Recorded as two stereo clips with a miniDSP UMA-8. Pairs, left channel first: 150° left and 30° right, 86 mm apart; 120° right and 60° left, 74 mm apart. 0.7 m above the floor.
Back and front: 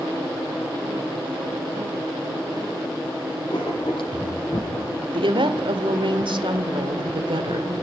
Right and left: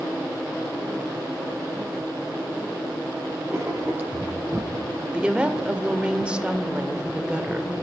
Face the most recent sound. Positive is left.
turn(degrees=-15)